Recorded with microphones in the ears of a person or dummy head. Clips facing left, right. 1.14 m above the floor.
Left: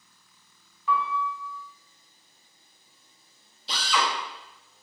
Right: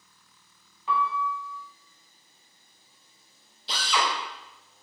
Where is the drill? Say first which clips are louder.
Even; centre (ahead or behind), 1.1 m.